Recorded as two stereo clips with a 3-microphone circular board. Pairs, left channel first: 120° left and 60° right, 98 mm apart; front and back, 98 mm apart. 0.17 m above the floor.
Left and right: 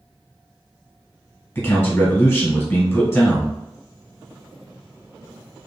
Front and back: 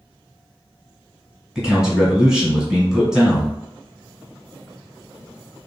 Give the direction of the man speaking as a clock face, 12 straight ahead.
8 o'clock.